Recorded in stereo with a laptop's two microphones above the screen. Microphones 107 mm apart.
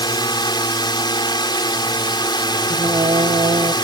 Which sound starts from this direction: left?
A drone, at 0.0 s.